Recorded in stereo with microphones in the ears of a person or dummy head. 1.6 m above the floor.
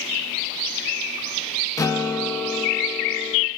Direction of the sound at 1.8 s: 15° left (ahead or behind).